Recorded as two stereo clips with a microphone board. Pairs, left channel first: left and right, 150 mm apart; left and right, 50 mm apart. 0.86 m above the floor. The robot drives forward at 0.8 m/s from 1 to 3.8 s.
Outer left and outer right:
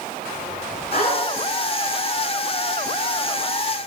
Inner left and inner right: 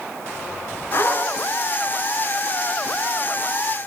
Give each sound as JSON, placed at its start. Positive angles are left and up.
{"t": 0.9, "sound": "a zipper", "side_deg": 70, "distance_m": 3.0}